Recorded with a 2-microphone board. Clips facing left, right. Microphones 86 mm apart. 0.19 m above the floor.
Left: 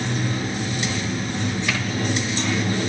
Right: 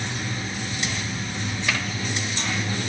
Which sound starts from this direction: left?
Running water, at 0.0 s.